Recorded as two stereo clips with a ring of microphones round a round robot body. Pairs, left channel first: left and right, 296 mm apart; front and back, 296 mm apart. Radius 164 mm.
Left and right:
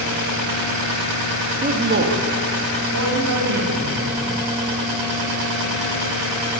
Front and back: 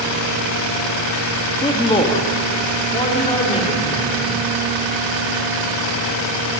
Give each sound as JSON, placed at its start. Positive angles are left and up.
{"t": 1.6, "sound": "a man speaking", "azimuth_deg": -60, "distance_m": 1.2}